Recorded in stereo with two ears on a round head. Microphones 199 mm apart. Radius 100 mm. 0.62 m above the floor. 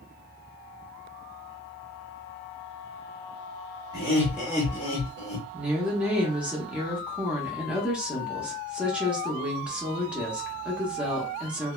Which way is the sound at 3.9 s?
15° right (ahead or behind).